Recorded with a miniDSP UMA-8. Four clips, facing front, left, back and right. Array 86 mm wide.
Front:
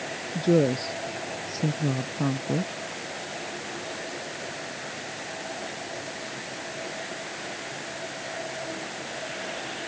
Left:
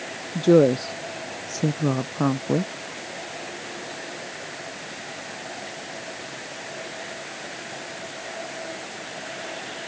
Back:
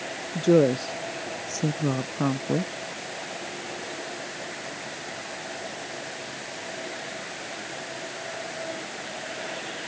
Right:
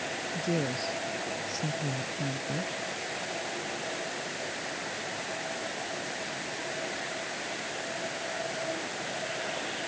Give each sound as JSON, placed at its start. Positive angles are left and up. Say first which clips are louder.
{"t": 0.3, "sound": "a woman speaking", "louder": "left 16 dB, back 3 dB", "azimuth_deg": 110}